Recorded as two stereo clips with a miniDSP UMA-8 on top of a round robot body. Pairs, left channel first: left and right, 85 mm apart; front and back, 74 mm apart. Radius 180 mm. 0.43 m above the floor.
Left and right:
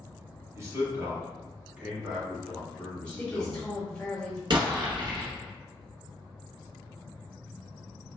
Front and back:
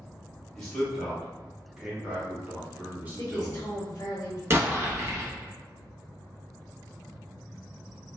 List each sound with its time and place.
0.6 s a man speaking: 80° right, 1.5 m; by 3.8 s 140° left, 1.6 m
3.2 s a woman speaking: 15° left, 1.1 m
4.5 s an explosion: 125° right, 0.6 m